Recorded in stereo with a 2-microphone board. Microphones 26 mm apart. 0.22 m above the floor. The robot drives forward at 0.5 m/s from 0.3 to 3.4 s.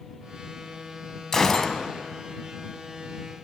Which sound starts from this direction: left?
A gunshot, at 1.3 s.